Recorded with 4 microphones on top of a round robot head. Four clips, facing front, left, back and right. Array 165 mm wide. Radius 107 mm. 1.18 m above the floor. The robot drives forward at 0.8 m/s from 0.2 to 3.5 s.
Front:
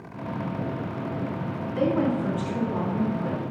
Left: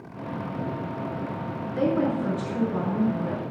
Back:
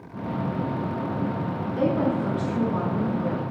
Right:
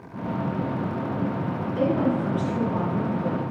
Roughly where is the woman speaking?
Ahead right.